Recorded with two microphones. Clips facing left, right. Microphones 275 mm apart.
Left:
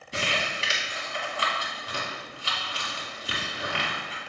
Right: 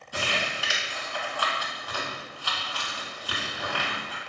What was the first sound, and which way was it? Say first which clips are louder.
Crumpling: even; 25° left (ahead or behind).